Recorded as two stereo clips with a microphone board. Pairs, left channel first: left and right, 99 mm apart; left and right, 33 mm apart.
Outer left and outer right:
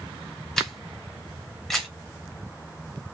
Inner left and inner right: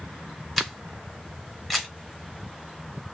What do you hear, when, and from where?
0.6 s a camera shutter: 5° left (ahead or behind), 1.1 m